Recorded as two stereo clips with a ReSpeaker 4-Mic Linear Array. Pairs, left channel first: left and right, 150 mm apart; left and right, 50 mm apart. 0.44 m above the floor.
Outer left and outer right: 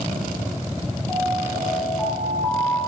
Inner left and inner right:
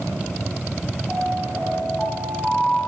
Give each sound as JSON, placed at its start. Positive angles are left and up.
{"t": 1.1, "sound": "an alarm", "side_deg": 15, "distance_m": 7.5}